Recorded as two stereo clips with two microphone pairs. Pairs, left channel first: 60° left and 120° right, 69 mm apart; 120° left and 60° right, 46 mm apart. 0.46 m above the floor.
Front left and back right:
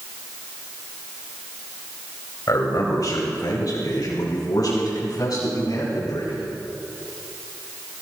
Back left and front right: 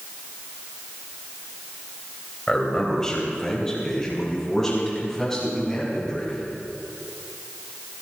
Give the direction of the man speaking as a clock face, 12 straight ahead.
10 o'clock.